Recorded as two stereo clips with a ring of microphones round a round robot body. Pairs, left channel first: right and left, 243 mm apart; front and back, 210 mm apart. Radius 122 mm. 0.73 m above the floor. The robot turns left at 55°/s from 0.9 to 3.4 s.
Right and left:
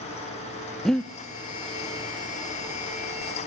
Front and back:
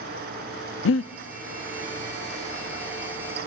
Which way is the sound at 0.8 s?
Straight ahead.